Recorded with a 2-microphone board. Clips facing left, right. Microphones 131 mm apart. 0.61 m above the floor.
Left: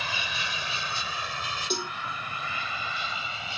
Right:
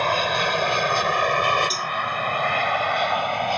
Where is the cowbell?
25° left (ahead or behind).